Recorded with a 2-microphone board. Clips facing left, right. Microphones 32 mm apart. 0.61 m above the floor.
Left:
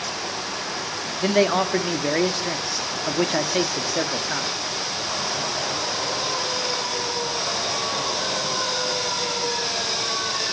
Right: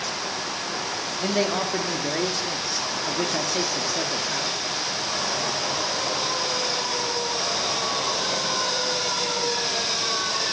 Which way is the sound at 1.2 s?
30° left (ahead or behind).